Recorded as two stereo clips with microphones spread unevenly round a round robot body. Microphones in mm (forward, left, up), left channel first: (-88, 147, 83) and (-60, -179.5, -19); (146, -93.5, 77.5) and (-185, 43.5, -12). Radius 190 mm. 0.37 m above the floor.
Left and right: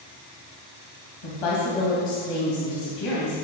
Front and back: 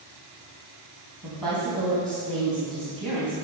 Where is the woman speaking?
70° left, 3 m.